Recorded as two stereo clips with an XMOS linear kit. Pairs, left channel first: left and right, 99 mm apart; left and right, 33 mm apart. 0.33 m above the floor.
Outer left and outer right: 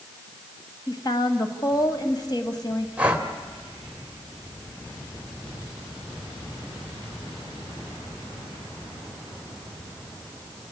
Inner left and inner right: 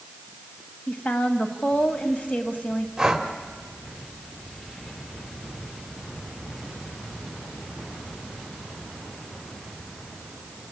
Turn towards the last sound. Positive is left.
turn(degrees=-15)  # may be behind; listen again after turning